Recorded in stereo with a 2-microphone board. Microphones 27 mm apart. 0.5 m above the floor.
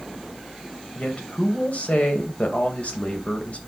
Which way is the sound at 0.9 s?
55° left (ahead or behind).